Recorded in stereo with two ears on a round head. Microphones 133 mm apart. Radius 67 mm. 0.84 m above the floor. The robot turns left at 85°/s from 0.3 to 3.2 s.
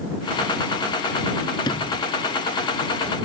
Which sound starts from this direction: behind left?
A sliding door, at 1.6 s.